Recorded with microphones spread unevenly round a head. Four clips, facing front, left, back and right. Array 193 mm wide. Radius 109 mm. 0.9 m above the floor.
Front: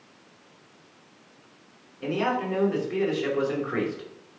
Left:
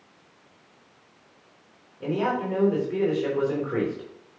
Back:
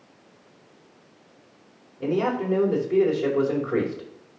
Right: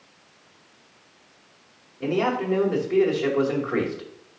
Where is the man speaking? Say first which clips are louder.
Right 2 dB, back 2 dB; 170° right, 4.5 m.